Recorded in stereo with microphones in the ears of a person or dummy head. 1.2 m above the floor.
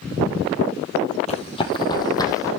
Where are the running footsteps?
35° left (ahead or behind), 2 m; by 2.5 s 15° left (ahead or behind), 3 m.